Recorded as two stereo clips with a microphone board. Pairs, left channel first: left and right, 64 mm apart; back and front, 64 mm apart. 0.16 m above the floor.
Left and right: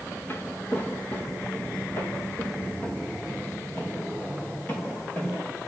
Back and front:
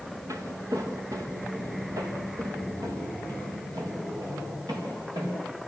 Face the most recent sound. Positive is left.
turn(degrees=25)